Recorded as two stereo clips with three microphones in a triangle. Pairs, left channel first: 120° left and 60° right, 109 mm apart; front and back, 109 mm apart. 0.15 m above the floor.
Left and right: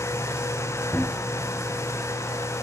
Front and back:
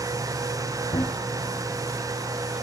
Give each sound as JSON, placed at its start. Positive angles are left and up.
{"t": 0.9, "sound": "running footsteps", "azimuth_deg": 45, "distance_m": 1.5}